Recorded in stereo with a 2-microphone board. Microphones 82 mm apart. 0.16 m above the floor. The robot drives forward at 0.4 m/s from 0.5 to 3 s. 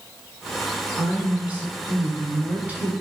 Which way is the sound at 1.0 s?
15° right (ahead or behind).